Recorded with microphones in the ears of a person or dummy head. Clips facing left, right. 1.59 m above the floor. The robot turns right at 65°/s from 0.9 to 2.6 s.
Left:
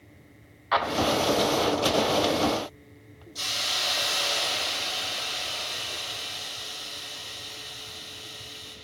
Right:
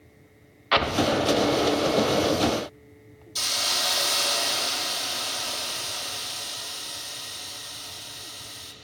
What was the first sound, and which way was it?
An explosion, 40° right (ahead or behind).